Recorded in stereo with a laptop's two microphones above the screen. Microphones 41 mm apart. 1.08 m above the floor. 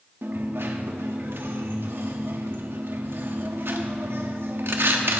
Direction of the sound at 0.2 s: 60° right (ahead or behind).